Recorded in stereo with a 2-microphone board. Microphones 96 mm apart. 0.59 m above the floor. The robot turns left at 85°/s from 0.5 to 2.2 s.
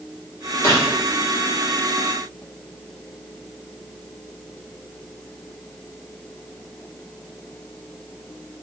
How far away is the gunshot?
About 1.1 m.